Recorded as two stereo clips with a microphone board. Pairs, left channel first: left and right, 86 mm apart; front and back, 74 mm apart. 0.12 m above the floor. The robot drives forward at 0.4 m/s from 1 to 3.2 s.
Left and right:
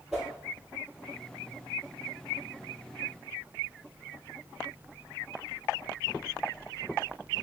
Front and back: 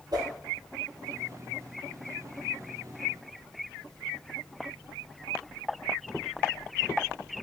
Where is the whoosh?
175° right, 0.8 m.